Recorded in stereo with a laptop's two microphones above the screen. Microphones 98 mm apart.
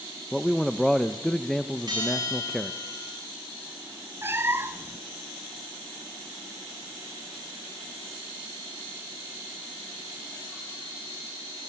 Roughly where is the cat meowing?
Right.